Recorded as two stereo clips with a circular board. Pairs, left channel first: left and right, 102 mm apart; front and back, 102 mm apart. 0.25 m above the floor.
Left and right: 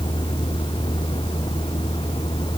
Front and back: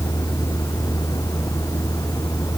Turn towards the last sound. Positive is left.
turn(degrees=55)